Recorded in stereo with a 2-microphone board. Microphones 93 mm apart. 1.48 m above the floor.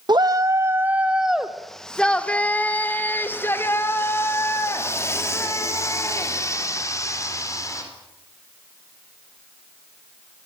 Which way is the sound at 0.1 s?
50° right (ahead or behind).